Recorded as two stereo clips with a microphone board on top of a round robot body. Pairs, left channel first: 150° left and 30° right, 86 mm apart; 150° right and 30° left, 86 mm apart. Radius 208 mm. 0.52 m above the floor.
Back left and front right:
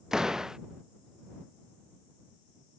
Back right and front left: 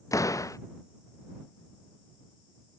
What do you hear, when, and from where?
0.1 s a door slam: 110° right